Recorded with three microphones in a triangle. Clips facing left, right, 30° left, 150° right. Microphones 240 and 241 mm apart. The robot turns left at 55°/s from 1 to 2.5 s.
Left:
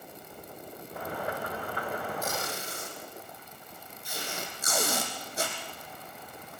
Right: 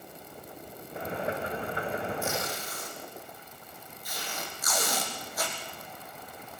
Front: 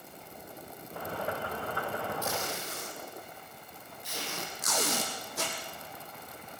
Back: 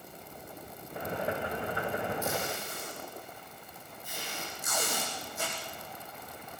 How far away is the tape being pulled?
About 5 m.